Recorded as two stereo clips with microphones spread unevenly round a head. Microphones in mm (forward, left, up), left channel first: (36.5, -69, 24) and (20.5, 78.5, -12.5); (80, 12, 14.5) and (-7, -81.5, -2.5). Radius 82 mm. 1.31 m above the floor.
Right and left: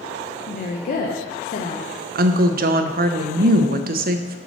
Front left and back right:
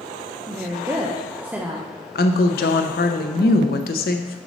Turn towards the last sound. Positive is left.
turn(degrees=65)